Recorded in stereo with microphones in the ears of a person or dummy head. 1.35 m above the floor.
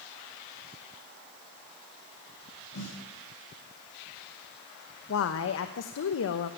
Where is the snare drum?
75° left (ahead or behind), 7.5 m.